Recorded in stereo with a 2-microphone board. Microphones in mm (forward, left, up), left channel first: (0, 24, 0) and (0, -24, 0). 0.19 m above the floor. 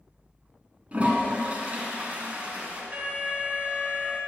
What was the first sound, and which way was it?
A toilet flushing, 30° right (ahead or behind).